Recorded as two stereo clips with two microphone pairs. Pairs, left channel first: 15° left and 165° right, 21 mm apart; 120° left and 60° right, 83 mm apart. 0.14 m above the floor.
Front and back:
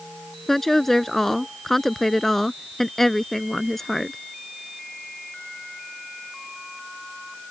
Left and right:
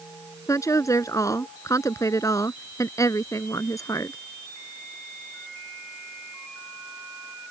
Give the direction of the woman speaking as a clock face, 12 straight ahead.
9 o'clock.